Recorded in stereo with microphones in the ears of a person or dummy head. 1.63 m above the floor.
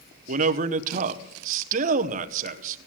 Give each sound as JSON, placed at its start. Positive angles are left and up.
{"t": 0.3, "sound": "a man speaking", "side_deg": -50, "distance_m": 0.9}